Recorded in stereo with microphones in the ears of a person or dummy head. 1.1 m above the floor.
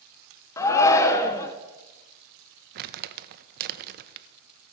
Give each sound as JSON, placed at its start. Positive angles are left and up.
{"t": 0.6, "sound": "a shout", "side_deg": 10, "distance_m": 0.6}
{"t": 2.8, "sound": "crumpling", "side_deg": -55, "distance_m": 0.6}